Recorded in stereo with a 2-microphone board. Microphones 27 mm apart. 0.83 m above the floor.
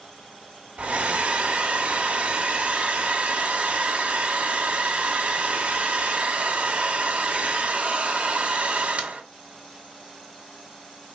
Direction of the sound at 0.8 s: 45° right (ahead or behind).